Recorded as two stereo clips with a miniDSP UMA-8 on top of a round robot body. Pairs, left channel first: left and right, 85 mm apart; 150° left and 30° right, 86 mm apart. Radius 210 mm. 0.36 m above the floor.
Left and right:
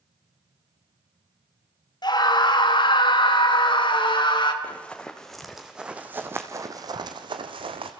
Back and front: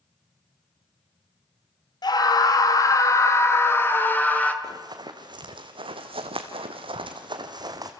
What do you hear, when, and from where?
2.0 s a scream: 115° left, 2.5 m; by 4.5 s 75° left, 3 m
4.6 s running footsteps: 15° left, 1.9 m; by 7.9 s 75° right, 1.5 m